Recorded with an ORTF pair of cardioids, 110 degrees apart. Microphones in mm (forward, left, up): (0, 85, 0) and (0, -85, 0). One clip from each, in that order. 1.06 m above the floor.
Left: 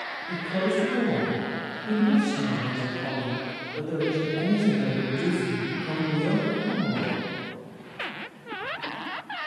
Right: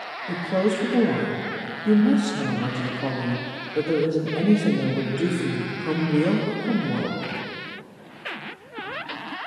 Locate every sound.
0.3 s a woman speaking: 65° right, 1.3 m